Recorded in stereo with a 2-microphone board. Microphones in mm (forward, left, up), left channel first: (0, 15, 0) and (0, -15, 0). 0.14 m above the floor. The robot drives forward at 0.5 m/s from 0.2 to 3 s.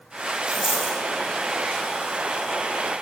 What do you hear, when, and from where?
0.5 s a dropped coin: 20° right (ahead or behind), 1.7 m